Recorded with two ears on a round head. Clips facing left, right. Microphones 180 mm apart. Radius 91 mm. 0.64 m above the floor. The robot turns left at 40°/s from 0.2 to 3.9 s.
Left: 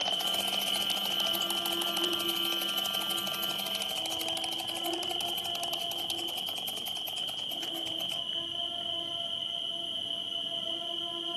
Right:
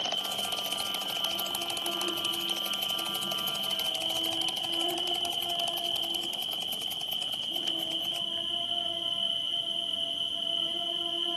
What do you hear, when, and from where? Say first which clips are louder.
0.0 s an insect: even; 110° left, 7.5 m; by 11.4 s 35° right, 7.5 m